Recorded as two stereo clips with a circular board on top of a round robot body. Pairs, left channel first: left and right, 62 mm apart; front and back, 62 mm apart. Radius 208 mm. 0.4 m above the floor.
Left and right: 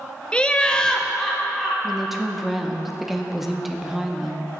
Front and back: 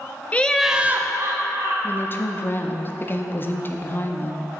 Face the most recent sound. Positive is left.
turn(degrees=-5)